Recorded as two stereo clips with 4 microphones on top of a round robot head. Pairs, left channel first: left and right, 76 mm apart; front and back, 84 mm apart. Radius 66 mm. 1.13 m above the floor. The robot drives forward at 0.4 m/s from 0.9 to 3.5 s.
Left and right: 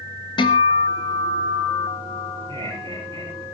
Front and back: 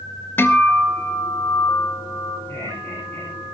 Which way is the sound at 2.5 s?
70° right.